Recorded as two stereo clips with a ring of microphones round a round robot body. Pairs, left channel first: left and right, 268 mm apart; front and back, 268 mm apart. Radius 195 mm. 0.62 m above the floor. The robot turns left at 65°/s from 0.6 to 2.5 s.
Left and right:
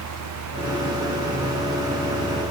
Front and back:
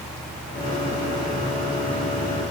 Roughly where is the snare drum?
No snare drum in this recording.